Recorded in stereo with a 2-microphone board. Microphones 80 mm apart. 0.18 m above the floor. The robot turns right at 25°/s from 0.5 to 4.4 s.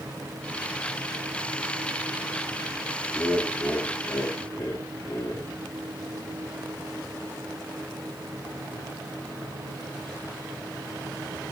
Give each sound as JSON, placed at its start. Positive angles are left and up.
{"t": 3.1, "sound": "laughter", "azimuth_deg": 15, "distance_m": 1.8}